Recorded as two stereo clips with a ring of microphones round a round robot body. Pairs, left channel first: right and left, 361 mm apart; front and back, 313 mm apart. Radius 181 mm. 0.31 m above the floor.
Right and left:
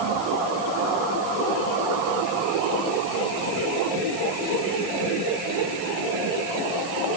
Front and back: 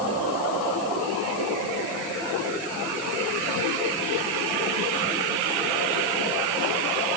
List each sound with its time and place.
Only background noise.